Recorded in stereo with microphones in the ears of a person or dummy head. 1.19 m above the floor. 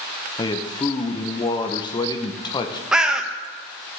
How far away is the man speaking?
About 0.8 m.